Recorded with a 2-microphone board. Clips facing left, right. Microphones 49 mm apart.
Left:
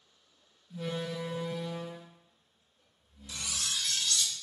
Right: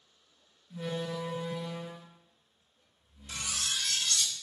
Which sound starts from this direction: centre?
A door slam, at 0.7 s.